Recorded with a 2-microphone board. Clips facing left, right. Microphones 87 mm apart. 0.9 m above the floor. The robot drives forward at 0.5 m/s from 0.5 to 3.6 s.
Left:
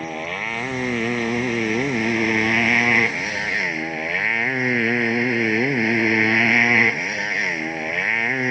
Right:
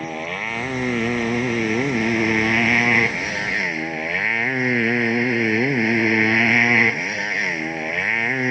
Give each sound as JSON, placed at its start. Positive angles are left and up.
{"t": 0.0, "sound": "a motorcycle", "side_deg": 0}